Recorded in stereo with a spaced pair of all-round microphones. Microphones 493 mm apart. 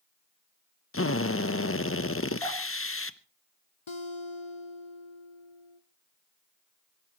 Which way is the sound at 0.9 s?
25° left (ahead or behind).